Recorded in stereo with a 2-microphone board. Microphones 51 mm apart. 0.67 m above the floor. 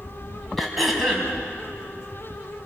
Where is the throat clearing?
Centre (ahead or behind), 4 m.